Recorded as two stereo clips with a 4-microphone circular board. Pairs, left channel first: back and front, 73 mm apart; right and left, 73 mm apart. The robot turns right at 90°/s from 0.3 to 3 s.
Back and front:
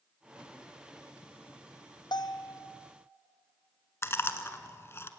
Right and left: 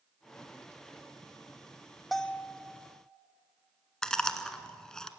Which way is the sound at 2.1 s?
Straight behind.